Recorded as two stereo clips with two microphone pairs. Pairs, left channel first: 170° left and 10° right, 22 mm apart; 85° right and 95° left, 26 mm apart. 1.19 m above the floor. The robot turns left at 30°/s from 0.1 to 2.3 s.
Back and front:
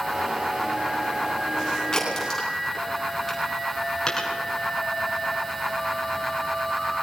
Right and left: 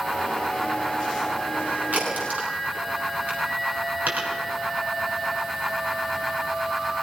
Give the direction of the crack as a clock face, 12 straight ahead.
9 o'clock.